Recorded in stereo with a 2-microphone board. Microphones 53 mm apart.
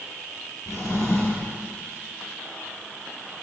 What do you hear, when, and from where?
0.7 s a drawer: 85° left, 6 m